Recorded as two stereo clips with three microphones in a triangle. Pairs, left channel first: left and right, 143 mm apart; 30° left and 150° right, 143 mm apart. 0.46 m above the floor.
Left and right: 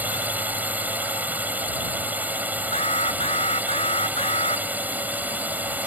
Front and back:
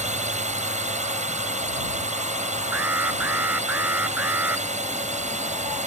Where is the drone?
165° right.